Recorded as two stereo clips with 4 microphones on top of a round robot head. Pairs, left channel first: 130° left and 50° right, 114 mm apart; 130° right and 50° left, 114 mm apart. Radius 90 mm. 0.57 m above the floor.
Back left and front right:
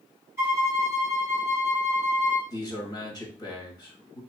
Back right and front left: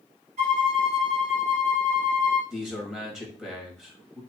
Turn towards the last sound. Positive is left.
turn(degrees=130)